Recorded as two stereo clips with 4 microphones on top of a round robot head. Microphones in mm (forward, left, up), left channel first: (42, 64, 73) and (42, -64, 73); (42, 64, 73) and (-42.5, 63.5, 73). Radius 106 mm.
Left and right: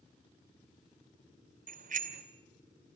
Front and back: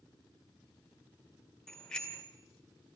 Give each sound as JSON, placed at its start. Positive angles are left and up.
{"t": 1.7, "sound": "a bicycle bell", "azimuth_deg": -85, "distance_m": 2.0}